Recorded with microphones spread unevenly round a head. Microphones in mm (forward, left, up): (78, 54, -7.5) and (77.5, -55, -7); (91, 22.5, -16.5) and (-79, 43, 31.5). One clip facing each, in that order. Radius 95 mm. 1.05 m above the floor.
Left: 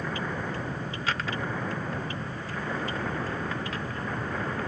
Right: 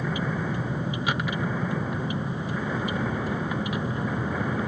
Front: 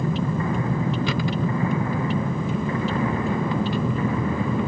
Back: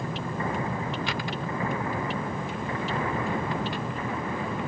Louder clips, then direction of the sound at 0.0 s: Right 3 dB, front 7 dB; 15° right.